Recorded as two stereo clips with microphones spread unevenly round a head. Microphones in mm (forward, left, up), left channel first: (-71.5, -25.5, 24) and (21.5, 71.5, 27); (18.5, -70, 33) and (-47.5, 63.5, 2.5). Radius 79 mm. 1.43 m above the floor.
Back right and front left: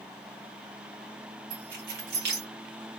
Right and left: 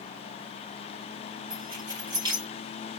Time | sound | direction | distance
1.5 | keys jangling | 50° left | 1.4 m